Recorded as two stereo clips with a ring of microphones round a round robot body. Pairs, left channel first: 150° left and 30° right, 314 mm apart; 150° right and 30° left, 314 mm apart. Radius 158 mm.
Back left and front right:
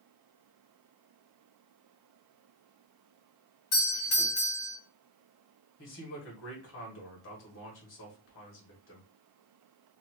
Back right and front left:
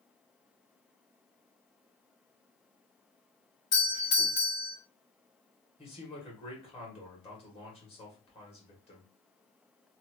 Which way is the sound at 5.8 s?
150° left.